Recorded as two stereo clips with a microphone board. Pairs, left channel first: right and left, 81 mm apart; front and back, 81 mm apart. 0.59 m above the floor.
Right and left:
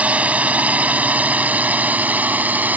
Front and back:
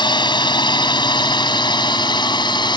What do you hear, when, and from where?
0.0 s a drone: 20° left